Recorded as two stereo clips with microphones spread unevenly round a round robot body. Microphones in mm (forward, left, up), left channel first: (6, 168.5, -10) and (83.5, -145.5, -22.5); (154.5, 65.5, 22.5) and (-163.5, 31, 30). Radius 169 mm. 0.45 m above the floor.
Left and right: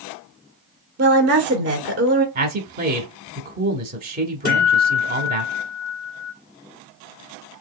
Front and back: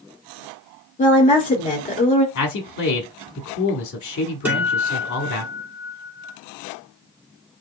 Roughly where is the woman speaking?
Ahead right.